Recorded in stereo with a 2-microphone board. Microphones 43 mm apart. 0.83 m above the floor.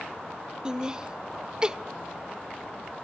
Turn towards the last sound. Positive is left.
turn(degrees=-20)  # may be behind; listen again after turning